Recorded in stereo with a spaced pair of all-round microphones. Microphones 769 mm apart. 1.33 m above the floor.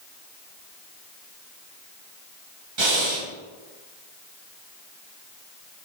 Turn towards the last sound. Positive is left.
turn(degrees=-35)  # may be behind; listen again after turning